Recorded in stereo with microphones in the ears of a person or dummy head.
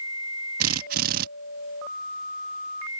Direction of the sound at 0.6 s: 45° right (ahead or behind).